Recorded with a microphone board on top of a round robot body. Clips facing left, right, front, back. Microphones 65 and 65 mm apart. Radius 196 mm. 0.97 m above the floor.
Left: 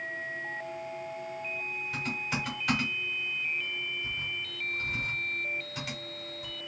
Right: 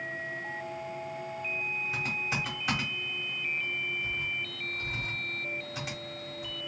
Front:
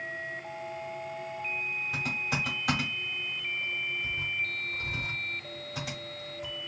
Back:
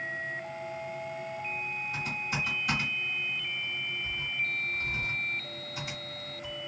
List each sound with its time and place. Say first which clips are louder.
1.9 s typing on a keyboard: left 1 dB, front 2 dB; 15° right, 1.0 m